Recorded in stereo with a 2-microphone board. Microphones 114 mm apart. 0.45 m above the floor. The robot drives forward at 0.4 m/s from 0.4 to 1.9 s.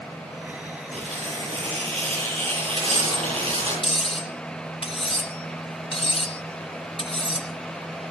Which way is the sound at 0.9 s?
60° right (ahead or behind).